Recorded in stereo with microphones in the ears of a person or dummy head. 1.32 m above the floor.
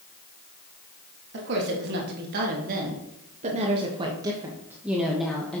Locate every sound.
1.3 s a woman speaking: 65° right (ahead or behind), 2 m; by 5.6 s 10° left (ahead or behind), 1.3 m